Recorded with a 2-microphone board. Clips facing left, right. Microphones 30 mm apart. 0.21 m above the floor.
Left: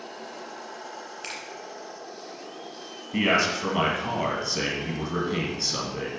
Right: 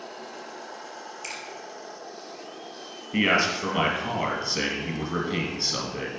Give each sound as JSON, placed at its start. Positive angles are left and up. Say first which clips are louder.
{"t": 1.2, "sound": "a finger snap", "louder": "even", "side_deg": 50, "distance_m": 1.6}
{"t": 3.1, "sound": "a man speaking", "louder": "even", "side_deg": -10, "distance_m": 1.9}